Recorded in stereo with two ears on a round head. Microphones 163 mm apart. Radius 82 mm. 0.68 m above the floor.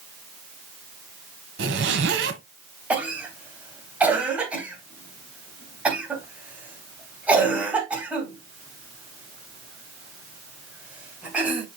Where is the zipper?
70° right (ahead or behind), 1.3 m.